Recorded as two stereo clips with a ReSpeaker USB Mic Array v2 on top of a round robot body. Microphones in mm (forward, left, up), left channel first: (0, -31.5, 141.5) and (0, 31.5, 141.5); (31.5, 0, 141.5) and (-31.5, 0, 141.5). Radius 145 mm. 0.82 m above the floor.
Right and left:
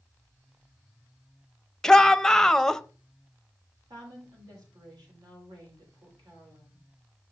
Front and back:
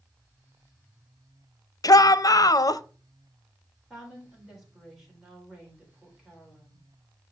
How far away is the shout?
About 0.6 m.